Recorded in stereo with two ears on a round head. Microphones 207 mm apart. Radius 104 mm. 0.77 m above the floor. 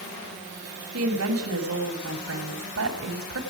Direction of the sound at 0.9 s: 60° right (ahead or behind).